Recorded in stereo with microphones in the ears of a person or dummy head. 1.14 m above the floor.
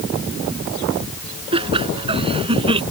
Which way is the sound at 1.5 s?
30° right (ahead or behind).